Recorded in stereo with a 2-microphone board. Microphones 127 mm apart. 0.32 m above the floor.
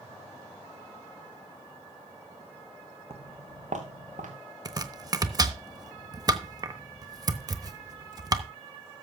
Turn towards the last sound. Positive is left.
turn(degrees=-20)  # may be behind; listen again after turning